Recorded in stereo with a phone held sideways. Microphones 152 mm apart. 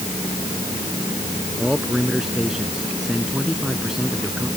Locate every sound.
1.6 s a man speaking: 5° right (ahead or behind)